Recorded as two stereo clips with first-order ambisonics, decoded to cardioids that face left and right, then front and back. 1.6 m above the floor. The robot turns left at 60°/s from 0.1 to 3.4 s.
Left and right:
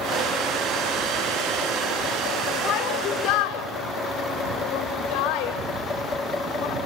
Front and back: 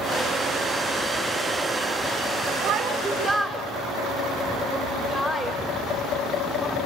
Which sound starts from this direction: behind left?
A shout, at 2.6 s.